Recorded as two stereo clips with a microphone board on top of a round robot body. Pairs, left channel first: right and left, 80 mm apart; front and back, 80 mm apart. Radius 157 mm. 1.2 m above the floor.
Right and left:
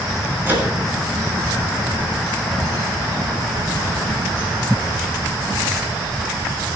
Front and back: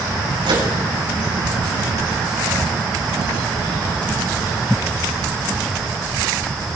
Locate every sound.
0.4 s a microwave: 155° left, 9 m